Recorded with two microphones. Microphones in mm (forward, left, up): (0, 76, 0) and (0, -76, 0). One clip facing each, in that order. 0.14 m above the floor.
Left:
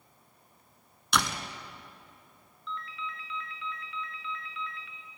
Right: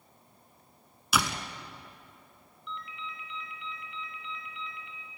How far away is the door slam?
About 1.0 m.